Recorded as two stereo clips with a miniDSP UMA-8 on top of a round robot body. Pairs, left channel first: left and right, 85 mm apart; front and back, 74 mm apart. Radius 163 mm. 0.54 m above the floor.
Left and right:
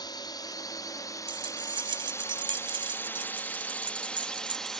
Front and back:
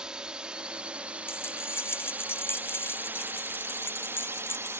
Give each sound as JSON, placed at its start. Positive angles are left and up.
{"t": 0.0, "sound": "a drone", "azimuth_deg": 105}
{"t": 1.3, "sound": "keys jangling", "azimuth_deg": -60}